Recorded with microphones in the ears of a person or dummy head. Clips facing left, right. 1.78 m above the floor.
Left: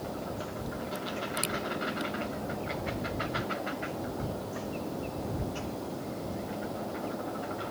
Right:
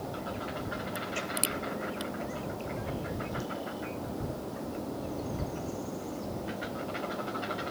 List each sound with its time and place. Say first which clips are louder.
0.9 s a crack: left 1 dB; 15° right (ahead or behind)